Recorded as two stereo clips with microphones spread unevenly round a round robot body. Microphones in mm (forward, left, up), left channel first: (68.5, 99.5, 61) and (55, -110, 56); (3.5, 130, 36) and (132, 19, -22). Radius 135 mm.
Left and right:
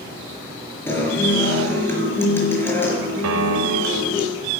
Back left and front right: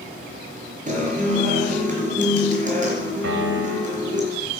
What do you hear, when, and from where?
0.9 s a guitar: 5° left, 5 m
3.2 s a piano: 95° right, 1.4 m